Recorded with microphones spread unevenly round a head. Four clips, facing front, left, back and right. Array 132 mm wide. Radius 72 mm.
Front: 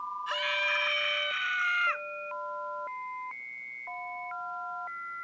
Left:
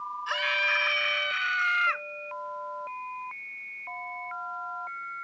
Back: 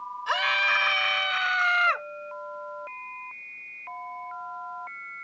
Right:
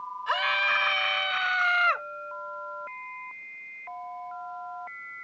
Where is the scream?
145° right; by 2.1 s 140° right.